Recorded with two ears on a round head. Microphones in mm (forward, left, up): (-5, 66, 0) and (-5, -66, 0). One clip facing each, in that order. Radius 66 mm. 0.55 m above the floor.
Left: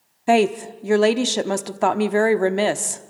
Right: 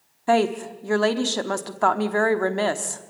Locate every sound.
0.3 s a woman speaking: 20° left (ahead or behind), 0.9 m